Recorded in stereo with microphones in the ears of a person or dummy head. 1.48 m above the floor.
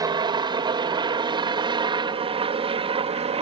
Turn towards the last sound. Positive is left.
turn(degrees=-25)  # may be behind; listen again after turning